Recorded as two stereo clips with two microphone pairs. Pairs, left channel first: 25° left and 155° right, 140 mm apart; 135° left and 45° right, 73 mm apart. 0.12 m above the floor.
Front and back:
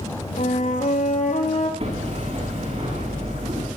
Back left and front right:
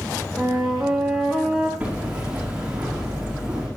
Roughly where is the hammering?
Behind right.